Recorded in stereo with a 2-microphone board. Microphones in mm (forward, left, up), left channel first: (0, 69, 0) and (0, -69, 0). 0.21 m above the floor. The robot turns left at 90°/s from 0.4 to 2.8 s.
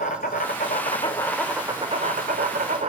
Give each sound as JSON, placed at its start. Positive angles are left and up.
{"t": 0.0, "sound": "an insect", "azimuth_deg": 90, "distance_m": 0.7}